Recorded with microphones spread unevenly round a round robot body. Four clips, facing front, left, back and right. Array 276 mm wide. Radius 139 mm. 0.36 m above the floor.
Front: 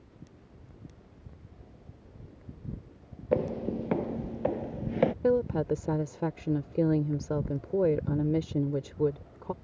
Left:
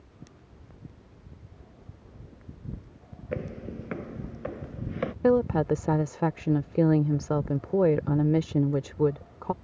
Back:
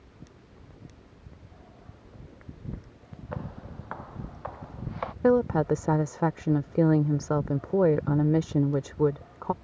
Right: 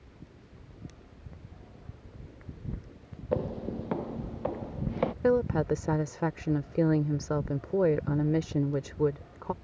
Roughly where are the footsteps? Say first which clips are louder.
Right 4 dB, front 12 dB; ahead.